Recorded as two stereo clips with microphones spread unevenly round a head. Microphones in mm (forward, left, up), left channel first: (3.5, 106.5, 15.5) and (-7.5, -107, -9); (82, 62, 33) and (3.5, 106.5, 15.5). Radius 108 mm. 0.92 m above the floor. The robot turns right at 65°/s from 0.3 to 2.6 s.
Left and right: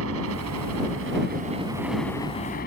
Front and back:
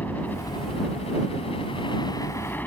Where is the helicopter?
110° right; by 2.7 s 40° left.